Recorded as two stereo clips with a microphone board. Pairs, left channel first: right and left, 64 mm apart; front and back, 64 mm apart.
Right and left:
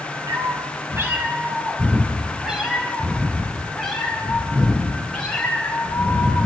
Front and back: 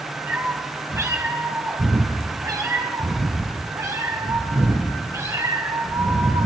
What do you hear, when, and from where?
0.3 s a cat meowing: 120° left, 3 m; by 6.5 s 165° right, 9 m